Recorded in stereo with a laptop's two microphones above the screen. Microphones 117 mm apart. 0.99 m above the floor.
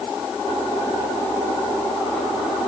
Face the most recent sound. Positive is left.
No sound to turn to.